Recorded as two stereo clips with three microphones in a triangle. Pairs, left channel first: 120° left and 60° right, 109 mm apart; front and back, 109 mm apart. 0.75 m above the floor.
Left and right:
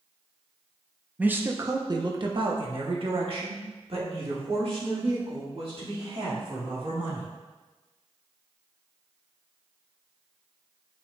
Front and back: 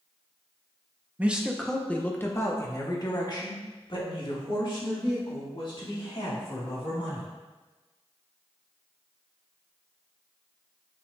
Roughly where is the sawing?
I don't hear sawing.